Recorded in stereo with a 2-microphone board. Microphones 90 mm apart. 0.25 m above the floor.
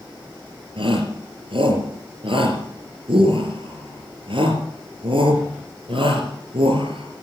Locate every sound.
0.8 s a shout: 70° right (ahead or behind), 4 m